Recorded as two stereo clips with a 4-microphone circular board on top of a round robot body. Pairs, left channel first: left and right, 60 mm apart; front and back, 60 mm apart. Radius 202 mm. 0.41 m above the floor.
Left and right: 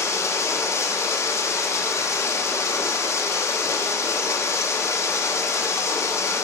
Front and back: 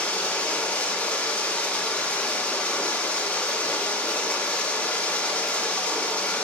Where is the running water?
70° left, 1.5 m.